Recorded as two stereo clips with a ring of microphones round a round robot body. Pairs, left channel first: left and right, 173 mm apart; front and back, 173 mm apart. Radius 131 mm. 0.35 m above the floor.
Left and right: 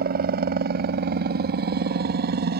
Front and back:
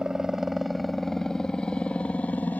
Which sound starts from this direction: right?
A helicopter, at 0.0 s.